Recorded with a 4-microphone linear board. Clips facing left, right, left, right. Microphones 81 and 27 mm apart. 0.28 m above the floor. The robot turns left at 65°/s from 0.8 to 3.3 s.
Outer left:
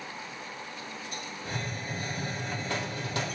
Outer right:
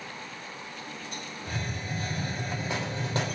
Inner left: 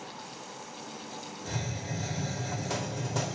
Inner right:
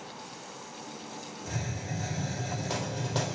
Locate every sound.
1.4 s a hiss: 75° left, 3 m; by 3.4 s 45° right, 3 m